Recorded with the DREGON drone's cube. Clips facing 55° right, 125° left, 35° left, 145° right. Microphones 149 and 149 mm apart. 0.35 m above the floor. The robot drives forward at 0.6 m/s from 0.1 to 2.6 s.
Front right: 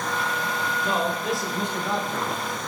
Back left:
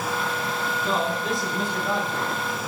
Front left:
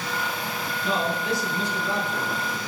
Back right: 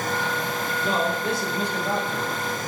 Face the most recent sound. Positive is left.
turn(degrees=-160)